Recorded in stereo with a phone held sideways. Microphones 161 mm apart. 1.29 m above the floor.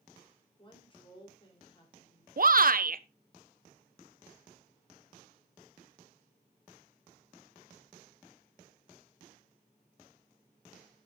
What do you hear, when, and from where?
0.6 s a woman speaking: 35° left (ahead or behind), 3 m
2.4 s a shout: 65° right (ahead or behind), 0.7 m